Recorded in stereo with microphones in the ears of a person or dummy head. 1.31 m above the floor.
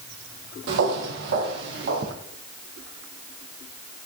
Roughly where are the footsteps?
Right.